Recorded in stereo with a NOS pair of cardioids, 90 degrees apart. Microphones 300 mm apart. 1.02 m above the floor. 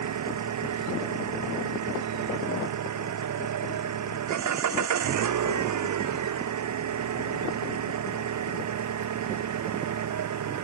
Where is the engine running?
65° right.